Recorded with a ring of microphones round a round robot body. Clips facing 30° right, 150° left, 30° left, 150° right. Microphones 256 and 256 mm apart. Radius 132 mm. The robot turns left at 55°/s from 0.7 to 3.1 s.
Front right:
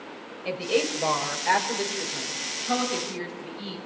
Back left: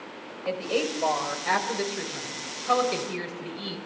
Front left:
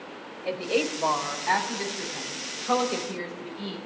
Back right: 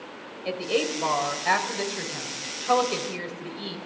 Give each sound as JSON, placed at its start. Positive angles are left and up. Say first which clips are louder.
{"t": 0.5, "sound": "a woman speaking", "louder": "front right 2 dB, even", "azimuth_deg": -85, "distance_m": 5.5}